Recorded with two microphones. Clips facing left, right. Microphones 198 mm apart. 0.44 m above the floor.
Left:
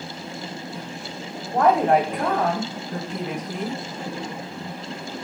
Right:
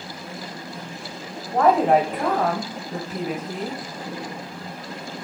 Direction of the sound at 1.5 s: 5° right (ahead or behind).